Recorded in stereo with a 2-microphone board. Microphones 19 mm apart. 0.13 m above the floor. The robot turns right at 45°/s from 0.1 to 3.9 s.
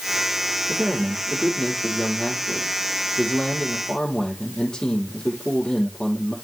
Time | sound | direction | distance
0.7 | a man speaking | 20° right | 4.5 m